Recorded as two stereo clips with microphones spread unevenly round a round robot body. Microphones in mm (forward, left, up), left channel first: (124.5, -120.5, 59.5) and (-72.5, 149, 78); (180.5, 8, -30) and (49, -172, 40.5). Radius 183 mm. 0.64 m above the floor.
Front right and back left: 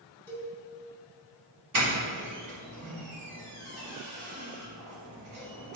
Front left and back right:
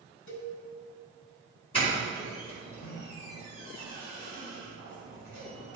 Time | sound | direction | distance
0.3 | a cowbell | 30° left | 3 m
1.7 | a doorbell | 110° left | 3.5 m